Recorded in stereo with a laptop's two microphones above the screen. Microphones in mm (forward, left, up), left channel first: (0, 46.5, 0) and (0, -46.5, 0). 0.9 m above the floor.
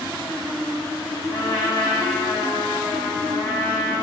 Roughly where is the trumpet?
Left.